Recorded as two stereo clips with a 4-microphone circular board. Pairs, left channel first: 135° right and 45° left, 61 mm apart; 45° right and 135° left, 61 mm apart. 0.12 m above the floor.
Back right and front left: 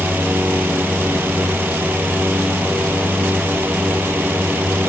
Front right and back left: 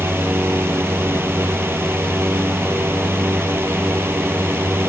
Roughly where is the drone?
Left.